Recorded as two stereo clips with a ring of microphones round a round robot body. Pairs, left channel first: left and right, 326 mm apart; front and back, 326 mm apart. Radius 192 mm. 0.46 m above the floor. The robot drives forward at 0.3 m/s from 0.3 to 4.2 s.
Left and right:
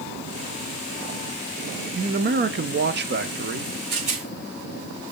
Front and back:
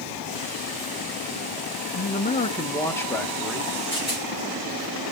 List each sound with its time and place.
1.9 s a man speaking: 45° right, 1.0 m; by 3.7 s 105° right, 0.9 m
3.9 s a rattle: 105° right, 5.5 m